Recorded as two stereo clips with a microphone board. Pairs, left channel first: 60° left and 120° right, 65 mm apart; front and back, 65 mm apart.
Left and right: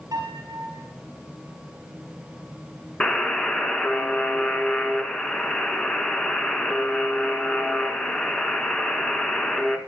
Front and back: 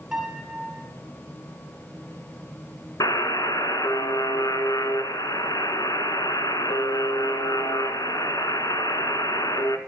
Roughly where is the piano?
Right.